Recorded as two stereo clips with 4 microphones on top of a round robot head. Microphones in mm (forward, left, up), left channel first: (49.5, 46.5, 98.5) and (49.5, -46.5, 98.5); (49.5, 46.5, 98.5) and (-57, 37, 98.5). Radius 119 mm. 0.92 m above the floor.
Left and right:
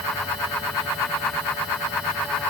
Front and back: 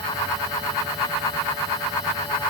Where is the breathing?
No breathing in this recording.